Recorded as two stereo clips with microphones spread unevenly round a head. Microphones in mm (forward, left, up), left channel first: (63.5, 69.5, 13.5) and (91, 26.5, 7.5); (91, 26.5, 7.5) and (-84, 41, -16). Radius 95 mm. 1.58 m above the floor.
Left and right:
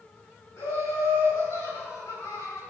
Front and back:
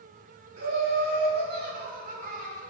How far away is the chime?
I don't hear a chime.